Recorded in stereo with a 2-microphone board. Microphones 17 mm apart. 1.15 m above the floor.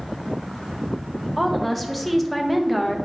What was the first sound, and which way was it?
A woman speaking, 5° left (ahead or behind).